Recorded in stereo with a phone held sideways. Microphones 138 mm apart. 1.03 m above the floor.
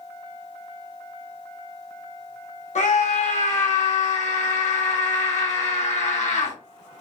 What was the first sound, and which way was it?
A scream, 65° left (ahead or behind).